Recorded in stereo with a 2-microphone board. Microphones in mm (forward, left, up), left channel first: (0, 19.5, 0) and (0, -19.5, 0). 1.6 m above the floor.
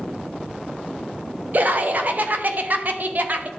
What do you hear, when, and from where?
1.5 s laughter: 45° right (ahead or behind), 0.7 m